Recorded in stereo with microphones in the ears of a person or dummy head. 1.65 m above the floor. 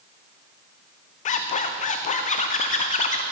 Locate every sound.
1.2 s a zipper: 35° left (ahead or behind), 0.6 m